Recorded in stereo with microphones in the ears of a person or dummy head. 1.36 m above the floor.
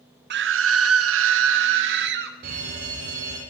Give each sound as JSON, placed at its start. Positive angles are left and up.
{"t": 0.3, "sound": "a scream", "side_deg": -55, "distance_m": 0.9}
{"t": 2.4, "sound": "a fire alarm", "side_deg": -55, "distance_m": 8.0}